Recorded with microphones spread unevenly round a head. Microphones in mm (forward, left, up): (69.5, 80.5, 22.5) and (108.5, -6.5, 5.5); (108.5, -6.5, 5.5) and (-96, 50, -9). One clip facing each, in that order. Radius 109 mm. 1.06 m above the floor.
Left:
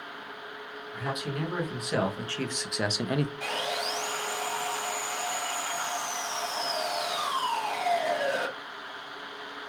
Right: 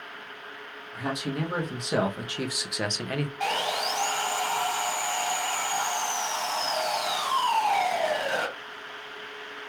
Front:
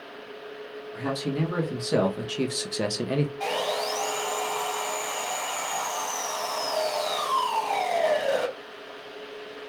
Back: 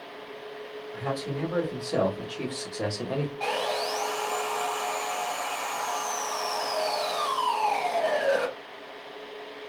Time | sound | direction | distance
0.9 | a man speaking | 15° right | 1.4 m
3.4 | sawing | 50° right | 1.4 m